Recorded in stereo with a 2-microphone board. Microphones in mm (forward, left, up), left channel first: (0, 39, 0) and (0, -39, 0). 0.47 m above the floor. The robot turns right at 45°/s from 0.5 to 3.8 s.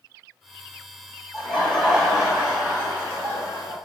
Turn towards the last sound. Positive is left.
turn(degrees=-95)